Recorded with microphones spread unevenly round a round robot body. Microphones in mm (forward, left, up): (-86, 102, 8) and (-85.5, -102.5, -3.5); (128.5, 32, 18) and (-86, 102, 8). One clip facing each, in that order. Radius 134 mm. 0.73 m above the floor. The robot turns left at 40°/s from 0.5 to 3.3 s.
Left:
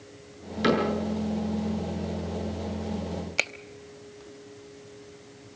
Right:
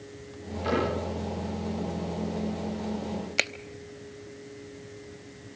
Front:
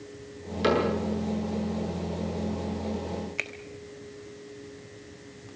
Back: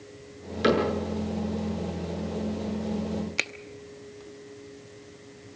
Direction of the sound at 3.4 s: 160° right.